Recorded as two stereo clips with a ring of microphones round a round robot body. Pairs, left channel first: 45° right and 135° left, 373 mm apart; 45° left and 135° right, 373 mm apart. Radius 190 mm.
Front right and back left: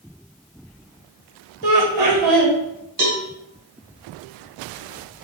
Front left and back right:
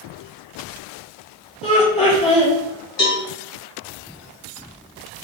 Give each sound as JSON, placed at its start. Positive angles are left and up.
{"t": 1.6, "sound": "laughter", "azimuth_deg": 120, "distance_m": 3.5}
{"t": 3.0, "sound": "a cowbell", "azimuth_deg": 95, "distance_m": 1.9}